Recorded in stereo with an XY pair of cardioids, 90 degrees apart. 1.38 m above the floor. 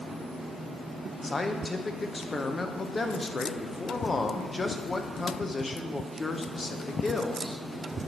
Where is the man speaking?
30° left, 0.8 m.